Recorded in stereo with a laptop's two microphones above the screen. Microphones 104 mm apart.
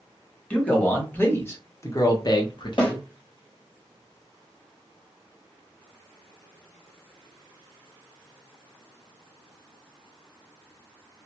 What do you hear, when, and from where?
0.5 s a man speaking: 15° left (ahead or behind), 1.6 m; by 3.0 s 45° left (ahead or behind), 0.8 m
2.8 s a snare drum: 50° left (ahead or behind), 1.3 m